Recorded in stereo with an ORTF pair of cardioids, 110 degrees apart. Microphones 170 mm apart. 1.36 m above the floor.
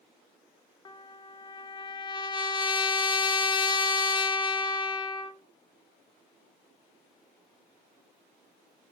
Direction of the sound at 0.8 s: 25° left.